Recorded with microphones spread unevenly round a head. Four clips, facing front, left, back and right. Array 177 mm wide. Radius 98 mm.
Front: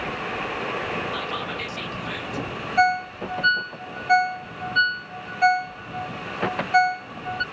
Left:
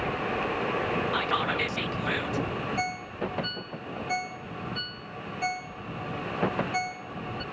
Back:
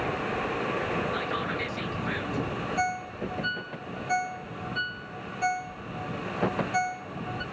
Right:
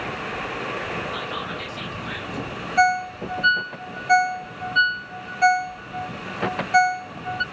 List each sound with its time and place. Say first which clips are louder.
1.1 s whispering: left 3 dB, front 1 dB; 95° left, 1.6 m
2.8 s a ringtone: right 12 dB, front 12 dB; 45° right, 0.8 m